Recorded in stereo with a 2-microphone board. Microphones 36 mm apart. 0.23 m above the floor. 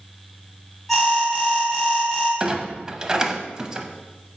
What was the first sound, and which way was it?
An alarm, 5° left (ahead or behind).